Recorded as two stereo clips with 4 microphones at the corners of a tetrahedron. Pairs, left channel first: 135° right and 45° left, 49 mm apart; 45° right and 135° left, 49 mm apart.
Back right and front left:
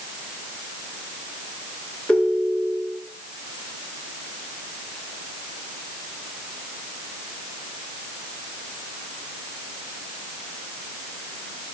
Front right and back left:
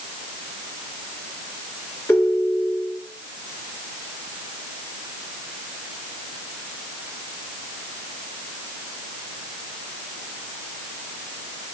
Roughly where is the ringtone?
Right.